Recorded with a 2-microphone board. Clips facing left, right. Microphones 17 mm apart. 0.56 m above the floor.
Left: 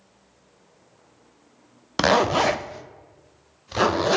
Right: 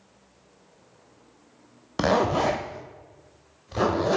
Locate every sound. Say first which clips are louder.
2.0 s a zipper: left 3 dB; 35° left (ahead or behind), 0.5 m